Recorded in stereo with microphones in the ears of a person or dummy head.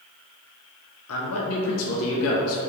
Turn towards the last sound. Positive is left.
turn(degrees=80)